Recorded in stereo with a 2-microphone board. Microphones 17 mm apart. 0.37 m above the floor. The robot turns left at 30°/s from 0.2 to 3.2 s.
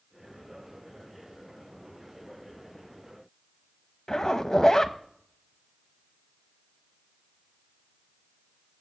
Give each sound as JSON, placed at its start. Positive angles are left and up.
{"t": 4.1, "sound": "a zipper", "side_deg": 30, "distance_m": 0.8}